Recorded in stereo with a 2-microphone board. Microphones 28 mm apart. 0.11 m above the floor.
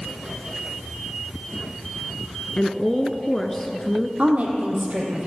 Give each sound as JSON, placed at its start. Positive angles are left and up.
{"t": 2.6, "sound": "a woman speaking", "side_deg": 20, "distance_m": 1.1}
{"t": 4.2, "sound": "a woman speaking", "side_deg": -60, "distance_m": 3.5}